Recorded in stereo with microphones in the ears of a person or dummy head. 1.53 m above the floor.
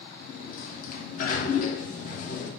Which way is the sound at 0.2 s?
45° left (ahead or behind).